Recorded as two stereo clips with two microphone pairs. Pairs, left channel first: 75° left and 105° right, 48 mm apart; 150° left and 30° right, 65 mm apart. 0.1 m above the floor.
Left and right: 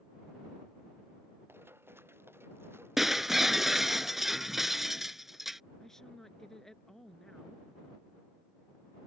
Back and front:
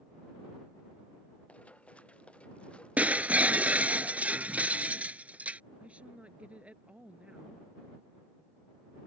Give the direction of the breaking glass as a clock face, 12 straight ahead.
1 o'clock.